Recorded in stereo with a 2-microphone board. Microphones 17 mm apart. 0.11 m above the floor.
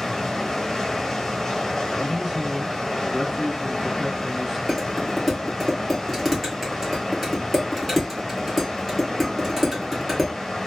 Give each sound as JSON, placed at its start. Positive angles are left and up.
{"t": 0.0, "sound": "running water", "side_deg": 25, "distance_m": 0.9}
{"t": 2.0, "sound": "a man speaking", "side_deg": -10, "distance_m": 1.1}
{"t": 4.7, "sound": "dishes clattering", "side_deg": -5, "distance_m": 1.5}